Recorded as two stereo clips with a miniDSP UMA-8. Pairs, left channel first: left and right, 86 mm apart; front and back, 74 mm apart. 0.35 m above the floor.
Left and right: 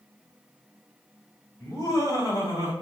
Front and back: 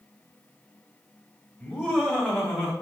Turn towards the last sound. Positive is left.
turn(degrees=115)